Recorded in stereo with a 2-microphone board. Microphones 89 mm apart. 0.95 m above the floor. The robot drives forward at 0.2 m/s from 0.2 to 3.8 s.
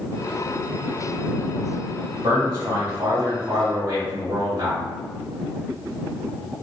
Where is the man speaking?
45° right (ahead or behind), 1.7 m; by 4.8 s 40° right (ahead or behind), 1.9 m.